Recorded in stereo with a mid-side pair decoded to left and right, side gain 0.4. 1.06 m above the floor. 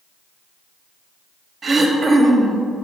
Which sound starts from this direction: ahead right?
Throat clearing, at 1.6 s.